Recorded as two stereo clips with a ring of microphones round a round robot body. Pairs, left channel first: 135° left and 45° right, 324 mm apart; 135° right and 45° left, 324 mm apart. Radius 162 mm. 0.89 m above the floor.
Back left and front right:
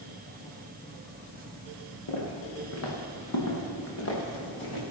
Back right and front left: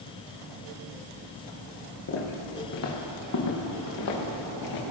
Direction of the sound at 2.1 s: 175° left.